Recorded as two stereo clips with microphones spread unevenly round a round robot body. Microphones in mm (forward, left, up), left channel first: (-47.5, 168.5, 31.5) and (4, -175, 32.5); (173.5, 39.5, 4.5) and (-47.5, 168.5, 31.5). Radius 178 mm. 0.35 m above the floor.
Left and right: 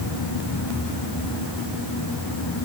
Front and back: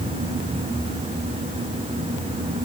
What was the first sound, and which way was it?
Only background noise.